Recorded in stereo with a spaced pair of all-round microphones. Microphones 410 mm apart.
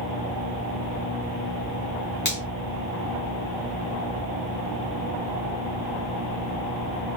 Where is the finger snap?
25° left (ahead or behind), 1.9 m.